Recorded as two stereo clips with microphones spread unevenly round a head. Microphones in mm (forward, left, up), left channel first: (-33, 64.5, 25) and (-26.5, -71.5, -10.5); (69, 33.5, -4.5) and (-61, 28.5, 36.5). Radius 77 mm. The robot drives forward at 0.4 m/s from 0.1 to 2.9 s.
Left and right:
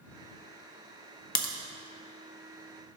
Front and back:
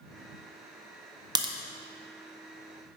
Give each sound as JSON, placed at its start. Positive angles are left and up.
{"t": 1.4, "sound": "a crack", "azimuth_deg": 115, "distance_m": 0.9}